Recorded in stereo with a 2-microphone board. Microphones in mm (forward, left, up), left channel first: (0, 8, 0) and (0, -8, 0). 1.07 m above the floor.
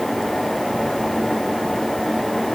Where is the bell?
I don't hear a bell.